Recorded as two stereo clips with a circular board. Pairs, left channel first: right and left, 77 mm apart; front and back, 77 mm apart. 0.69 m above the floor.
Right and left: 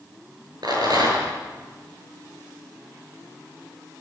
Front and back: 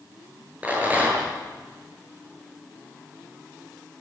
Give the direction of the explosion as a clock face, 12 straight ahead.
No explosion in this recording.